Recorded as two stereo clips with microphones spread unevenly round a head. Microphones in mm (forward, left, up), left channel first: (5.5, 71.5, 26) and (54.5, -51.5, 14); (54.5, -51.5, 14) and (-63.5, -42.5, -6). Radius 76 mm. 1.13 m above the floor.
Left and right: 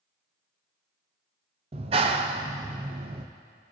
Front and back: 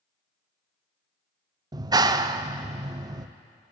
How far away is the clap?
About 0.5 m.